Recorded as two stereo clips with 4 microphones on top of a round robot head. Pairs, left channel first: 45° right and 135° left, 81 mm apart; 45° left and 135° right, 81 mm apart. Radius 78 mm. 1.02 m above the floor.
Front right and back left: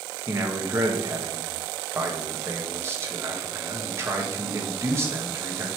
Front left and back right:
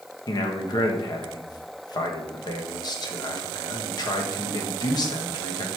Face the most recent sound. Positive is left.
turn(degrees=75)